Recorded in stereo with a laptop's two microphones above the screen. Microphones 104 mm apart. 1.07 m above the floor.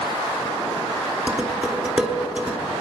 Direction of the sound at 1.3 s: 10° right (ahead or behind).